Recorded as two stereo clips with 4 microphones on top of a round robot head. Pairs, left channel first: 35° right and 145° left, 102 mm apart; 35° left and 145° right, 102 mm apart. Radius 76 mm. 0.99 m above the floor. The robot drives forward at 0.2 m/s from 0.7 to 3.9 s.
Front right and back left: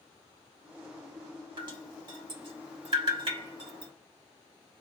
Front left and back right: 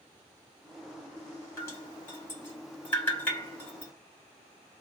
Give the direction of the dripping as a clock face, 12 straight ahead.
9 o'clock.